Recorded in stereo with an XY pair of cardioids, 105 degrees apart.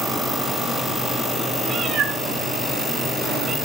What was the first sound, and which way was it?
A cat meowing, 55° right.